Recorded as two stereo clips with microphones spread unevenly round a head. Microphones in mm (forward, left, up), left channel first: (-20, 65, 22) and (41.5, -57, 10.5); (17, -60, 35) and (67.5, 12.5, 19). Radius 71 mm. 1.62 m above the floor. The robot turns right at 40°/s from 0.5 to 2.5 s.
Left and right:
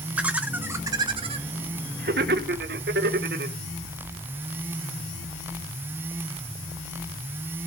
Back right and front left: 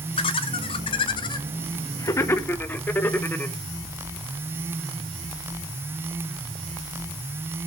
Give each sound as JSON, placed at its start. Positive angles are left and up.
{"t": 0.2, "sound": "laughter", "azimuth_deg": -145, "distance_m": 1.0}